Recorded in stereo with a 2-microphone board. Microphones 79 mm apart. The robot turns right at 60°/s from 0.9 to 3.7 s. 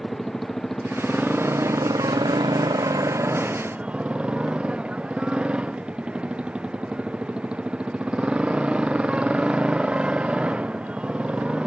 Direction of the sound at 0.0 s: 175° left.